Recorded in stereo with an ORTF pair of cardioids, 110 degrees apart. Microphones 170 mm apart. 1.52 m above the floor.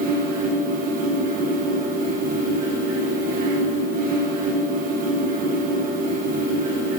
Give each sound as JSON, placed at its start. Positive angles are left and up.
{"t": 0.0, "sound": "a fan", "azimuth_deg": -55, "distance_m": 1.2}